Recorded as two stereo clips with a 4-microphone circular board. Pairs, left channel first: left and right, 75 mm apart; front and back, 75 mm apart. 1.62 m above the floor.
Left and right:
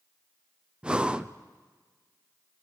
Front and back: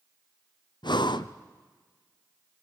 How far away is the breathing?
About 0.5 m.